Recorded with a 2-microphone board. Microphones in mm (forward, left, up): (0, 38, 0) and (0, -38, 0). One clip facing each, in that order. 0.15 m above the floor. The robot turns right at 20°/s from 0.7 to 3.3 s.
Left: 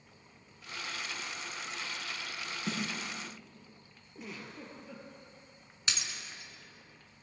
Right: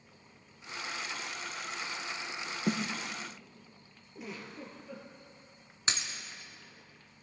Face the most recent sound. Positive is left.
turn(degrees=-35)  # may be behind; listen again after turning